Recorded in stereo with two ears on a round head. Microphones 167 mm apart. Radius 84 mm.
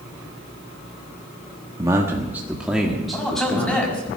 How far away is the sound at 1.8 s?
About 1.3 m.